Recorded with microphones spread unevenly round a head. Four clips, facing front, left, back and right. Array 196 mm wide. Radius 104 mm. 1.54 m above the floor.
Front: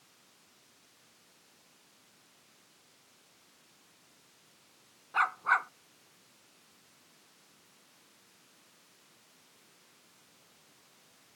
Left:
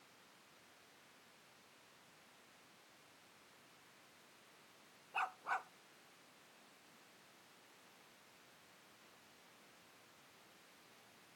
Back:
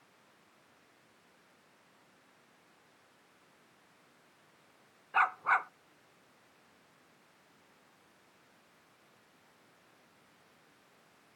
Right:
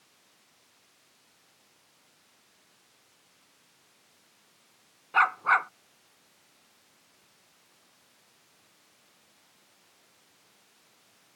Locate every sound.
5.1 s a dog barking: 85° right